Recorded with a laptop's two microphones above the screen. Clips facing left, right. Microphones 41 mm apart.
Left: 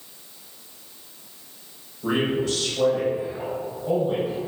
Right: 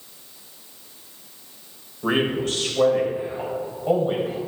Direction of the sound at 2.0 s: 50° right (ahead or behind).